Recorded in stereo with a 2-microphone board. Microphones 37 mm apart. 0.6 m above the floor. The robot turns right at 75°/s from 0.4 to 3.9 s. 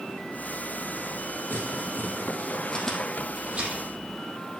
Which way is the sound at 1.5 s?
60° left (ahead or behind).